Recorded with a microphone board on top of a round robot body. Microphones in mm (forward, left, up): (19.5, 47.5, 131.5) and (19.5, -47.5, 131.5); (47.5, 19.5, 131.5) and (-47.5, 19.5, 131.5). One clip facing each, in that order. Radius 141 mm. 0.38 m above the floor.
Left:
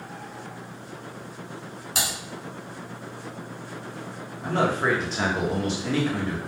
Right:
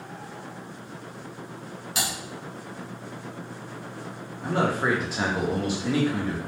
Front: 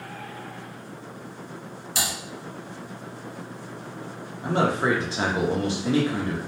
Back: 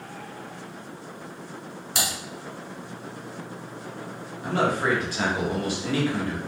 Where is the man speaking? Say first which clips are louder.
Left 1 dB, front 1 dB; 20° right, 0.8 m.